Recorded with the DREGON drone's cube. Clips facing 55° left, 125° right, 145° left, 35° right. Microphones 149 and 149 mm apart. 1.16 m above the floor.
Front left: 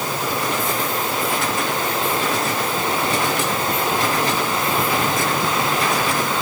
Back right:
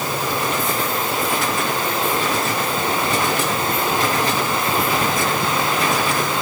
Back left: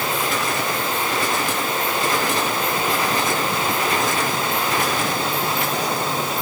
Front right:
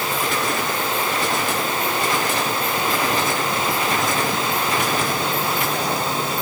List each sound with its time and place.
Only background noise.